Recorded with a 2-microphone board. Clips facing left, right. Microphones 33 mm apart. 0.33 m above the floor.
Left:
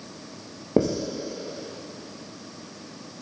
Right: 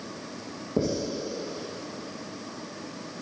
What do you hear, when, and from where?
0.8 s writing: 80° left, 3.5 m